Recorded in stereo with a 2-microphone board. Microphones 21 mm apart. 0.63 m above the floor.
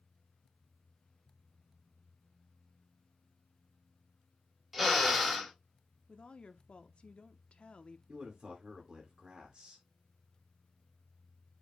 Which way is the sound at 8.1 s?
45° right (ahead or behind).